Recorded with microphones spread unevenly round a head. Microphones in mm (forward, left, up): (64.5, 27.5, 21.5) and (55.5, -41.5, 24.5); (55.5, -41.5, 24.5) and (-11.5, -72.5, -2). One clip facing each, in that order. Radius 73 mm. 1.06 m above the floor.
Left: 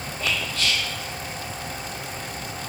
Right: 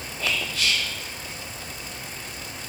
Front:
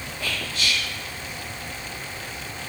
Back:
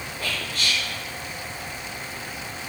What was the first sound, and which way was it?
Whispering, 115° right.